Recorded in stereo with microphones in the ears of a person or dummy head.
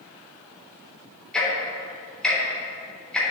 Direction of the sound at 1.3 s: 10° left (ahead or behind).